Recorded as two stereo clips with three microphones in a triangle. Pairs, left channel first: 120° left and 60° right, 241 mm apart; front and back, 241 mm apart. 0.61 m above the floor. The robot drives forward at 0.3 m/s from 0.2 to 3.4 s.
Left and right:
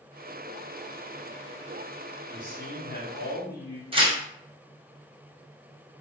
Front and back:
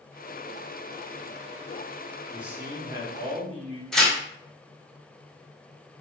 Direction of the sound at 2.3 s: 95° left.